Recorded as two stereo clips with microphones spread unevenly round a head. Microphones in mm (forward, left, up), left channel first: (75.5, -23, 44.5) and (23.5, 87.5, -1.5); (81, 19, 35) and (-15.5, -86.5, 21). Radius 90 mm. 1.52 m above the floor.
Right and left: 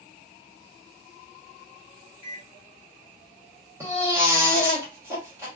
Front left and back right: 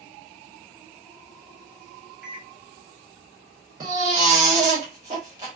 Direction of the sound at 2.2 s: 45° right.